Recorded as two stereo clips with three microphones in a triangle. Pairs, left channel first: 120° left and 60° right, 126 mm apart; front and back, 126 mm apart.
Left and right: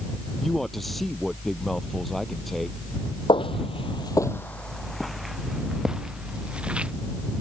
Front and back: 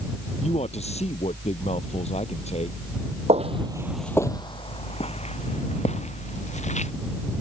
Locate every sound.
0.4 s a man speaking: 30° left
3.3 s footsteps: 165° left; by 6.9 s 20° left